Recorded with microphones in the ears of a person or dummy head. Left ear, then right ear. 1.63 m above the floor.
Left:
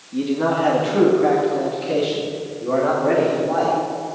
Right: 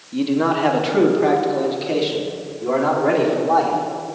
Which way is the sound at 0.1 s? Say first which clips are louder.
Right 1 dB; 30° right (ahead or behind).